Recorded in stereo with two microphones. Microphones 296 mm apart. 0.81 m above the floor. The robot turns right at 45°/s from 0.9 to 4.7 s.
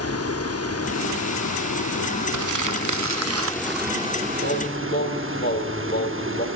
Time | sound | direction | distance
0.0 | running water | 55° left | 0.8 m
2.3 | crumpling | 100° right | 0.7 m
4.4 | singing | 50° left (ahead or behind) | 2.5 m